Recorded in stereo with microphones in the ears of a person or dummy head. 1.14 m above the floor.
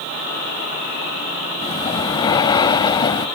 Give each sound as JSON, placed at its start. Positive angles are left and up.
{"t": 1.6, "sound": "breathing", "side_deg": 25}